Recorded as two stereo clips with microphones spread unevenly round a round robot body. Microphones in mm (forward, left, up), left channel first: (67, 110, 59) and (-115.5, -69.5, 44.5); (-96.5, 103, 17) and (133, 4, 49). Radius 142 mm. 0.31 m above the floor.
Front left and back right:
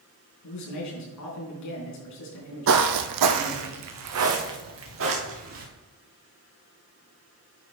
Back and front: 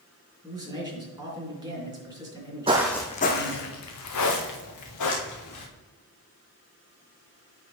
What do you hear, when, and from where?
0.4 s a man speaking: 50° left, 4 m
2.7 s footsteps: 90° right, 0.7 m; by 5.6 s 175° right, 3.5 m